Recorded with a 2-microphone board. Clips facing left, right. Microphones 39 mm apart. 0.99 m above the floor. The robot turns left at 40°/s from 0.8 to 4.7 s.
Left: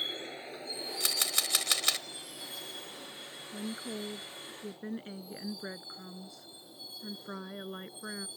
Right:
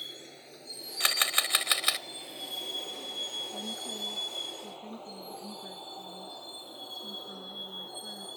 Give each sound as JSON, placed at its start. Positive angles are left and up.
{"t": 0.0, "sound": "a vehicle", "side_deg": 35}
{"t": 1.0, "sound": "a camera shutter", "azimuth_deg": -130}
{"t": 3.5, "sound": "a woman speaking", "azimuth_deg": 160}